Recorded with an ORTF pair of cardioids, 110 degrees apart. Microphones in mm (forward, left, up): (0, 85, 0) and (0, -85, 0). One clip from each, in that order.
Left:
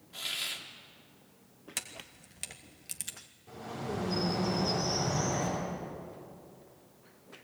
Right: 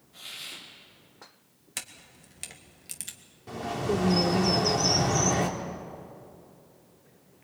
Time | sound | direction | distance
0.1 | a hiss | 55° left | 3 m
1.8 | a camera shutter | straight ahead | 1.9 m
3.5 | a bird | 65° right | 3.5 m